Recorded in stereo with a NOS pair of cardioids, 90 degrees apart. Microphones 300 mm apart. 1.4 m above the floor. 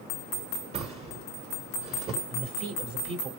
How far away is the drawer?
About 1.7 m.